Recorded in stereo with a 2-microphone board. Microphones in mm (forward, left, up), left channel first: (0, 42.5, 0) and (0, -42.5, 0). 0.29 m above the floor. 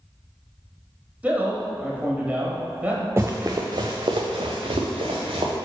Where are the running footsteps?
25° right (ahead or behind), 1.0 m; by 5.5 s 80° right, 1.7 m.